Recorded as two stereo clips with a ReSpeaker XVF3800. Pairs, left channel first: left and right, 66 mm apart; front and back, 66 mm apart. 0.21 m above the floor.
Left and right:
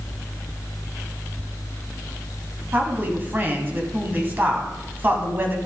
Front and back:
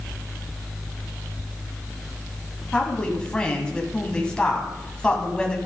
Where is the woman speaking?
65° right, 1.8 m.